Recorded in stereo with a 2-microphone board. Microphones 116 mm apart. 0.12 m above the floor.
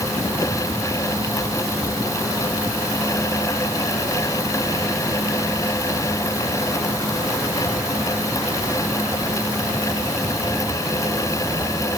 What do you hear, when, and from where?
Only background noise.